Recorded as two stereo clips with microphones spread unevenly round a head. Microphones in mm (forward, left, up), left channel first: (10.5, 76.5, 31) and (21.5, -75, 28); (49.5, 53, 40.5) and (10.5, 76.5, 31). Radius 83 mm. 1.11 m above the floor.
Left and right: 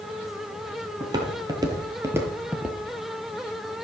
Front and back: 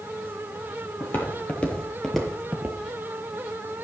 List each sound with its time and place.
1.0 s footsteps: 25° right, 1.6 m; by 2.8 s 165° right, 1.1 m